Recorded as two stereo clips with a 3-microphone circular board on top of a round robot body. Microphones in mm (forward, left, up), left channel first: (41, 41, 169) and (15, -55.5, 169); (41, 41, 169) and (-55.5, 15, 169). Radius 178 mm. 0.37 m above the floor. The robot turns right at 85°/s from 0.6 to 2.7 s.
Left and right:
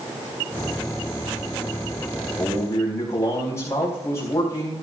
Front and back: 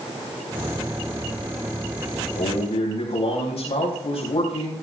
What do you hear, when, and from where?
2.4 s a man speaking: 15° right, 4.5 m; by 4.7 s 15° left, 4.5 m